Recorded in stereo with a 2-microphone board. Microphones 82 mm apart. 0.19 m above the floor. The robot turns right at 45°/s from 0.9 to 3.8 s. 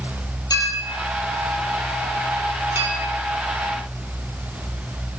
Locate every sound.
0.5 s a clink: 55° left (ahead or behind), 3 m; by 2.9 s 35° right (ahead or behind), 3 m